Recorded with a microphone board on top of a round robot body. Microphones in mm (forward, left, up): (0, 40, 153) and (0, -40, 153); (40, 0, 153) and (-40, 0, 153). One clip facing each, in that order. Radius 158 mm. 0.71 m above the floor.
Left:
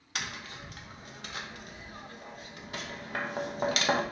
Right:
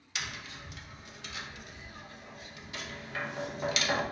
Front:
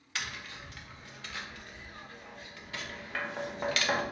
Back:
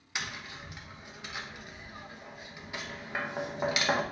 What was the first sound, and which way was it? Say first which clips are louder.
Tapping: left 2 dB, back 1 dB; 110° left.